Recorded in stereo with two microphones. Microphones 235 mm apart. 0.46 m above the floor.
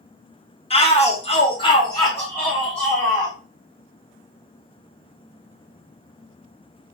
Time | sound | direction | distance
0.7 | a shout | 25° left (ahead or behind) | 1.0 m